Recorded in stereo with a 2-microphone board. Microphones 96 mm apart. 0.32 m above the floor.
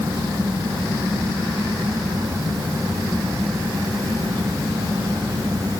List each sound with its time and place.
Only background noise.